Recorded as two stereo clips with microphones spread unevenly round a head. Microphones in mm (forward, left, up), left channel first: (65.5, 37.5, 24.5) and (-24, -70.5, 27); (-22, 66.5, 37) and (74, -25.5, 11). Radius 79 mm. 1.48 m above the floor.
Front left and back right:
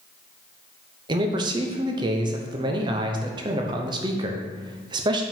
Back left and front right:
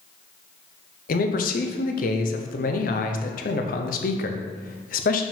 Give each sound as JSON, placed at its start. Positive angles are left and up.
{"t": 1.1, "sound": "a man speaking", "azimuth_deg": 170, "distance_m": 0.7}